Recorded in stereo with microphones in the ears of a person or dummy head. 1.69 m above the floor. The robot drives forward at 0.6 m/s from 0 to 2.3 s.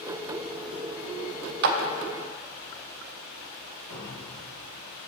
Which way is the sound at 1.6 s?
60° right (ahead or behind).